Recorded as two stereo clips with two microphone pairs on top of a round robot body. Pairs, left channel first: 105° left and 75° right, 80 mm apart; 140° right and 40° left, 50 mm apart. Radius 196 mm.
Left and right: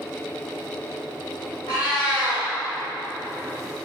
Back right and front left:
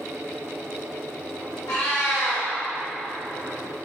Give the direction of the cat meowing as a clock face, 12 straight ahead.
5 o'clock.